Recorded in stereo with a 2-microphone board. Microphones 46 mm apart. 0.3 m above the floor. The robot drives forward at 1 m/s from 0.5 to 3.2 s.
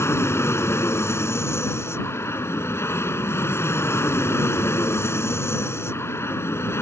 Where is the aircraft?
65° left (ahead or behind).